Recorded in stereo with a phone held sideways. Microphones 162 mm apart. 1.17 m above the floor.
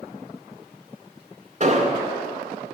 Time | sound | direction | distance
1.6 | an explosion | 40° right (ahead or behind) | 1.8 m